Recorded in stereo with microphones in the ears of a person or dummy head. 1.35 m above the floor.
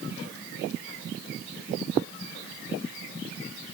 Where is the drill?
I don't hear a drill.